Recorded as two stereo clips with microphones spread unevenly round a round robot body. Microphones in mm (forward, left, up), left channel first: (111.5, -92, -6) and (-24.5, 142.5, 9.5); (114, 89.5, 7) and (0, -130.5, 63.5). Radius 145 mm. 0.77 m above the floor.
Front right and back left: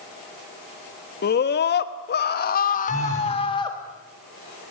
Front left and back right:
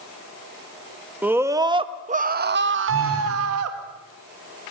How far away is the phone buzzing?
About 9 m.